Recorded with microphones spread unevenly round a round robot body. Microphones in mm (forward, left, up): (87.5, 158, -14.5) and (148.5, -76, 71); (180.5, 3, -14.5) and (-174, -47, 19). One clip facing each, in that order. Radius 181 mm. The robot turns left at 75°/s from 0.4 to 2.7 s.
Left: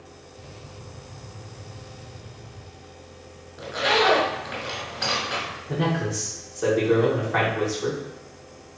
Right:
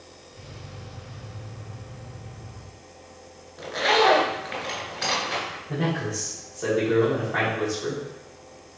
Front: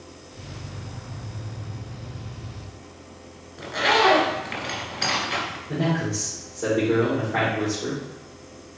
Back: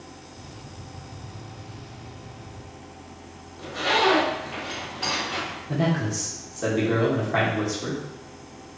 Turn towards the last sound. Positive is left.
turn(degrees=135)